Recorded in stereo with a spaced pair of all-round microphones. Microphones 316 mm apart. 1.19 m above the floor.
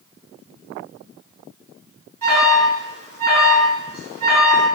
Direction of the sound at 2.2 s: 85° right.